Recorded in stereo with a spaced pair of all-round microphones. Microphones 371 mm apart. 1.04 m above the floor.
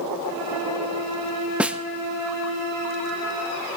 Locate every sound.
1.6 s a snare drum: 5° right (ahead or behind), 0.7 m